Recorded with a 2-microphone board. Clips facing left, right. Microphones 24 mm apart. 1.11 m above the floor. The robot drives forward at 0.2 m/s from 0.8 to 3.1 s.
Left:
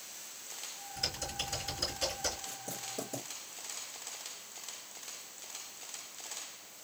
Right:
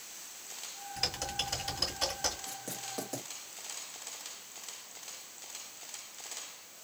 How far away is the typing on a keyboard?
About 1.9 m.